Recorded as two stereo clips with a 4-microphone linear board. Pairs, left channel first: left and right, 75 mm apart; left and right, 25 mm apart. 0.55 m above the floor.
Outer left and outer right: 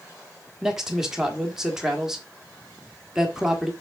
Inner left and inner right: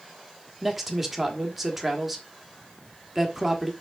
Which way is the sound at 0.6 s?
5° right (ahead or behind).